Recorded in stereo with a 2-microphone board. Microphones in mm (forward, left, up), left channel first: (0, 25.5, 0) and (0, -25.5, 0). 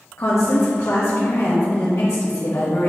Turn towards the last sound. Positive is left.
turn(degrees=80)